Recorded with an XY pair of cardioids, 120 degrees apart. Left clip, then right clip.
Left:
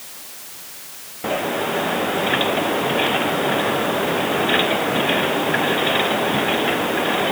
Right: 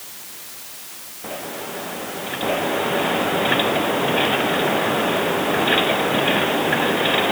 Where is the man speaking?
I don't hear a man speaking.